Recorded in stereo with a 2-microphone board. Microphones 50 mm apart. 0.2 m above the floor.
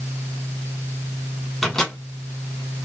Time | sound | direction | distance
1.6 | a microwave | 10° left (ahead or behind) | 1.8 m